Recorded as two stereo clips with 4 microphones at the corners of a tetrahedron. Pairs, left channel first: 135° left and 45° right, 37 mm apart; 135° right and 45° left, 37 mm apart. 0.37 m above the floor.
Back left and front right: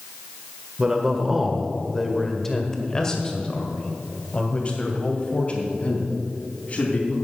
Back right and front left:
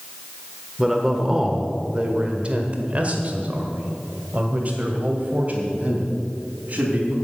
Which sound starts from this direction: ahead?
A man speaking, at 0.8 s.